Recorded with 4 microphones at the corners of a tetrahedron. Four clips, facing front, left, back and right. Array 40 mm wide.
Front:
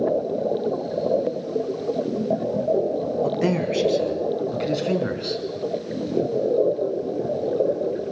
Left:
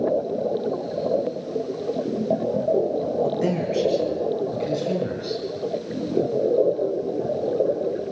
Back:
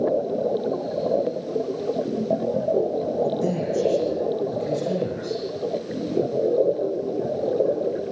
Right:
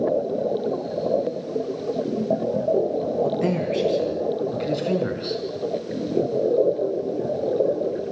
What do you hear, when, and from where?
3.2 s a man speaking: 10° right, 3.5 m; by 5.4 s 35° right, 5 m